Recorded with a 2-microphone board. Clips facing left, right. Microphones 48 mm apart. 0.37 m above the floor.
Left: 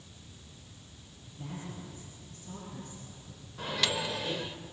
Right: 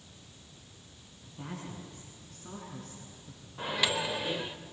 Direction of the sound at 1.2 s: 75° right (ahead or behind).